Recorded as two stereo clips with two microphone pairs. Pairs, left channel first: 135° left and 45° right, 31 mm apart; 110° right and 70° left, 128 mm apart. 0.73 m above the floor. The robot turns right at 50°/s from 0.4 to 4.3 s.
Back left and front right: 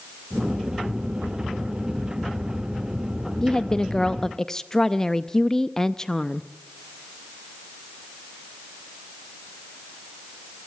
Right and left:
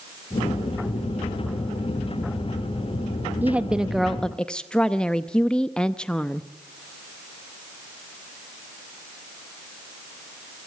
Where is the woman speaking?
125° left, 0.5 m; by 6.5 s 165° left, 0.5 m.